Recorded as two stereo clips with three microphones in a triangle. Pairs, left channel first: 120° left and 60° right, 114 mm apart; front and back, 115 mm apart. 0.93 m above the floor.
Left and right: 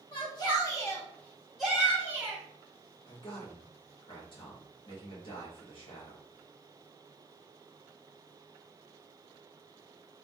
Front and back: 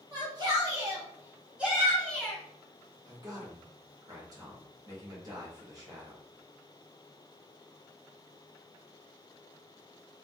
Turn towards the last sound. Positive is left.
turn(degrees=135)